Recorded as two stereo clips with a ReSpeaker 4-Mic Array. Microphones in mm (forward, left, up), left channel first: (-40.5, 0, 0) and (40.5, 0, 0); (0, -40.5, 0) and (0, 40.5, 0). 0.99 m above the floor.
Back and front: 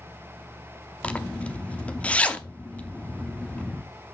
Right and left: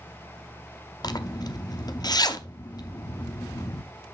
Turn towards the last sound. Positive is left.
turn(degrees=-110)